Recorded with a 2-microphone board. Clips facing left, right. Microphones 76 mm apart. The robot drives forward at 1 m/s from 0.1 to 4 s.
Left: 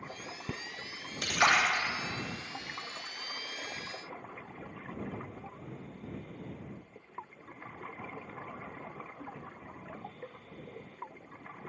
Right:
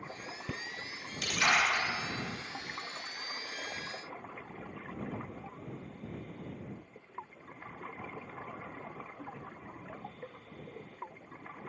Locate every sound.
1.2 s a splash: 50° left (ahead or behind), 0.9 m; by 1.8 s 65° left (ahead or behind), 0.8 m